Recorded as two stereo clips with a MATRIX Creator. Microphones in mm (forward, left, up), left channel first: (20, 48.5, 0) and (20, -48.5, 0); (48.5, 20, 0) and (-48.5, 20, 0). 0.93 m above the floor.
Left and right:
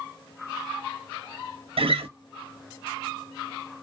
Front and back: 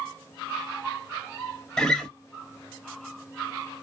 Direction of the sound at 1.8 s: 85° right.